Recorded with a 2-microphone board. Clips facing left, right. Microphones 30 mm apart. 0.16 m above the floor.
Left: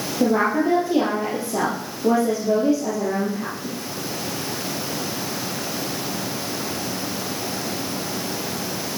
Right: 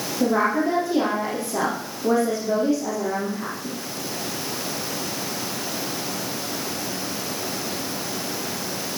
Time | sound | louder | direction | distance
0.2 | a woman speaking | left 1 dB | 20° left (ahead or behind) | 4.5 m